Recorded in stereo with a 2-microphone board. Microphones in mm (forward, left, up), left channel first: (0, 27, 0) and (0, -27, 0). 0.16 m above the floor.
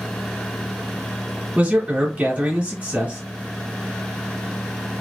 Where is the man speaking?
30° right (ahead or behind), 1.5 m.